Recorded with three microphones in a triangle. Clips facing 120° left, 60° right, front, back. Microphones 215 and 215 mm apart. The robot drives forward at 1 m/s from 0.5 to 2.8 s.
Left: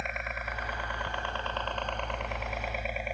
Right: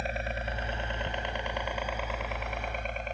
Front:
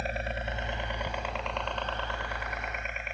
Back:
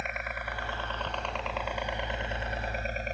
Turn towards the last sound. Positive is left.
turn(degrees=-165)